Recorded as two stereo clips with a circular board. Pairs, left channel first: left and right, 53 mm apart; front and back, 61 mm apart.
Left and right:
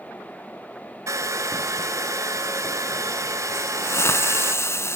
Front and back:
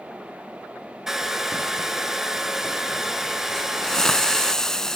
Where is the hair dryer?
95° right, 1.0 m.